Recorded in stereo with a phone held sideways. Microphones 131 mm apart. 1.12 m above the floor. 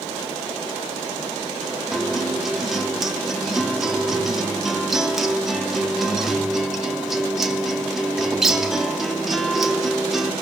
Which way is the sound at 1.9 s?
5° right (ahead or behind).